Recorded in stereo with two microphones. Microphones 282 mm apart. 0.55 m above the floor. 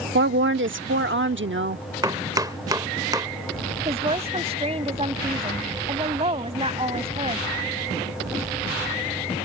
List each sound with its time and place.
0.1 s a woman speaking: 45° right (ahead or behind)
2.0 s chopping: 15° right (ahead or behind)
3.9 s a woman speaking: 20° right (ahead or behind)